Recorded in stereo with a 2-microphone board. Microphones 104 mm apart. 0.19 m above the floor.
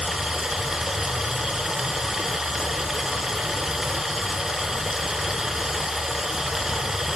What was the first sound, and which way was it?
Running water, 5° right (ahead or behind).